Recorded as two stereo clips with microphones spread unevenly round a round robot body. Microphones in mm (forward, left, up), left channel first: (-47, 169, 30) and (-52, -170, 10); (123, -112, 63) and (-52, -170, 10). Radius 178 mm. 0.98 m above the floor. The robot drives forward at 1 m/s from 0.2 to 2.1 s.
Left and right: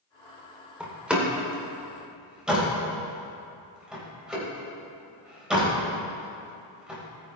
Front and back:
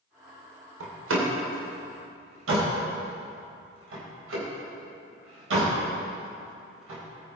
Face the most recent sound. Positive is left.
turn(degrees=180)